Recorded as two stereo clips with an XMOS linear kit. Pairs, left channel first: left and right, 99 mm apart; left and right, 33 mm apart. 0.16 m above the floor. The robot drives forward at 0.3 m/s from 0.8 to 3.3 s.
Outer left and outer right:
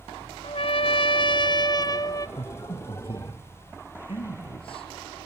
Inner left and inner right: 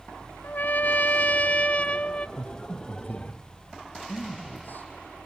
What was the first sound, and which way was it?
A trumpet, 65° left (ahead or behind).